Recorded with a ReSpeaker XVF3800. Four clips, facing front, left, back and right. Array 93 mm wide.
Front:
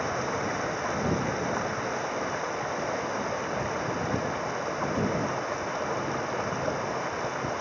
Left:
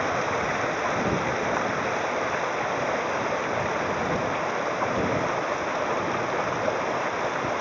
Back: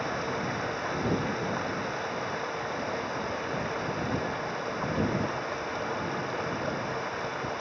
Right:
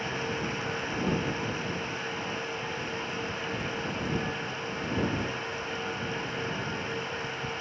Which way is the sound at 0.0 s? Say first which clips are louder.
Left 7 dB, front 2 dB; 80° left.